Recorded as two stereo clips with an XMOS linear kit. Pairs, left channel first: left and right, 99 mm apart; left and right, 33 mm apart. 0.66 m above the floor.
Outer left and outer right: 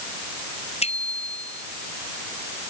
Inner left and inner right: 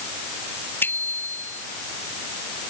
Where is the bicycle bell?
85° left.